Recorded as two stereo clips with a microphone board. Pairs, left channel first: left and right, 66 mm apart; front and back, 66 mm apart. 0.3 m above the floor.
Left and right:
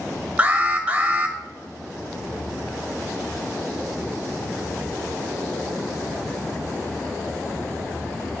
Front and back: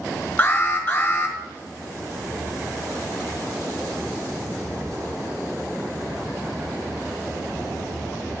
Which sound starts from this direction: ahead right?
An alarm, at 0.4 s.